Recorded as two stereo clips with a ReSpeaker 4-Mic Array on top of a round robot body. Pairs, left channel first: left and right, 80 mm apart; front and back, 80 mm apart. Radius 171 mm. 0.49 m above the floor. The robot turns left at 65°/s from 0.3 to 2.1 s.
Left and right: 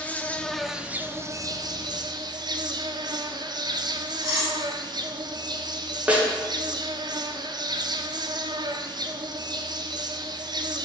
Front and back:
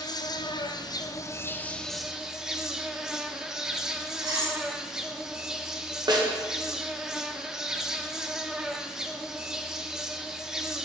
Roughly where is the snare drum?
Behind.